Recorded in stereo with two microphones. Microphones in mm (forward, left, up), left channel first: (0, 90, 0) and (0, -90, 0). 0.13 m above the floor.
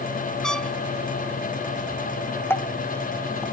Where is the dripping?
10° left (ahead or behind).